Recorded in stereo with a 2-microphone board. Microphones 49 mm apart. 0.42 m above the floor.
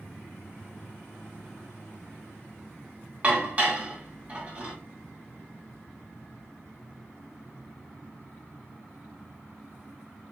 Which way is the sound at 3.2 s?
30° right (ahead or behind).